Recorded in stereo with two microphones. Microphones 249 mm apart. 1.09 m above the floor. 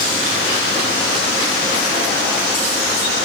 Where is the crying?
I don't hear crying.